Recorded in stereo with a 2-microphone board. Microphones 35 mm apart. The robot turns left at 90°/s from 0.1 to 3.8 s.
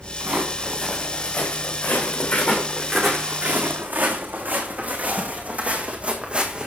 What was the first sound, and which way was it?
Footsteps, 50° right (ahead or behind).